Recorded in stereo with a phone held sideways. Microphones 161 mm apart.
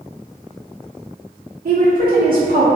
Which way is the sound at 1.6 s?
70° right (ahead or behind).